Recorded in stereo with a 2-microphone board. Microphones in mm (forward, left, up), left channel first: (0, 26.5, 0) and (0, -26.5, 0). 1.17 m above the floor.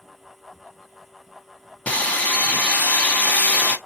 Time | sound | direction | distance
1.9 | sawing | 25° left (ahead or behind) | 1.0 m